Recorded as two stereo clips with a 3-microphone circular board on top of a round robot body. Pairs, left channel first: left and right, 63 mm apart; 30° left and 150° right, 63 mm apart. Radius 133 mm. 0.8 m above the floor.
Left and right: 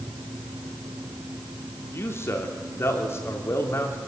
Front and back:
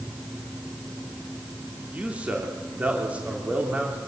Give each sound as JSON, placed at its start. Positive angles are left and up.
{"t": 1.9, "sound": "a man speaking", "azimuth_deg": 140, "distance_m": 3.0}